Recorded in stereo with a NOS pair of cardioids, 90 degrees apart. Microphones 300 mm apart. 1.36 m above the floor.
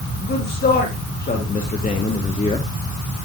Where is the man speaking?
35° left, 3.5 m; by 2.7 s 20° left, 1.4 m.